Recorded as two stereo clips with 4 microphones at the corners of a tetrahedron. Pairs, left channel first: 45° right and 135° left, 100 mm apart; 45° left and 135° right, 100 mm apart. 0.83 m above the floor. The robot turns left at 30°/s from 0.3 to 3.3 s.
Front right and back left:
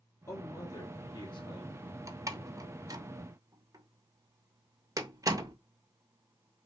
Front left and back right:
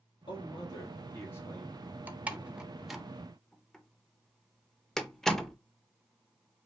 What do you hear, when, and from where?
0.3 s a man speaking: 10° left, 1.7 m; by 1.8 s 35° right, 1.7 m
2.1 s a door slam: 165° left, 0.6 m; by 5.5 s 125° left, 0.6 m